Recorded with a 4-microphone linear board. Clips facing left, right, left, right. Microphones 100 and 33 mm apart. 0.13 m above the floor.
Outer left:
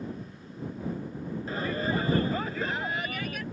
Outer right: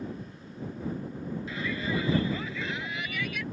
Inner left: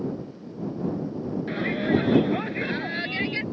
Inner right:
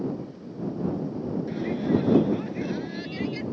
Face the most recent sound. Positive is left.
turn(degrees=45)  # may be behind; listen again after turning